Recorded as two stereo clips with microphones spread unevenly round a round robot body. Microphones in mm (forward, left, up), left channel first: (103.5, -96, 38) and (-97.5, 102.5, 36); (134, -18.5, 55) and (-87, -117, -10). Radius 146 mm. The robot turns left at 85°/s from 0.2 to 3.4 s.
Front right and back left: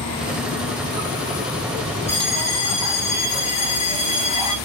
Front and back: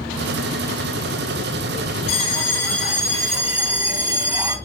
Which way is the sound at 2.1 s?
40° left.